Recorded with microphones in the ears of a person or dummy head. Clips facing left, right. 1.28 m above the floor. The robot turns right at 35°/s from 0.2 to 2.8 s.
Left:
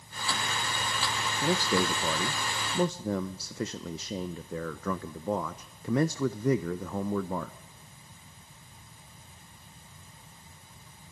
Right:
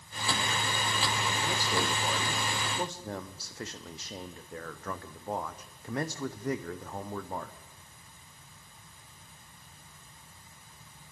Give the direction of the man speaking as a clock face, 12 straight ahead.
10 o'clock.